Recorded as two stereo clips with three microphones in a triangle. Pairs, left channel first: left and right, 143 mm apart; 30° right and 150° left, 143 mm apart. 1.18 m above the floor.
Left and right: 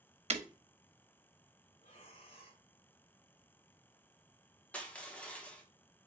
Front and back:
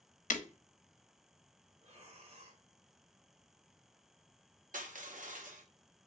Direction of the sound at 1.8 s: 125° left.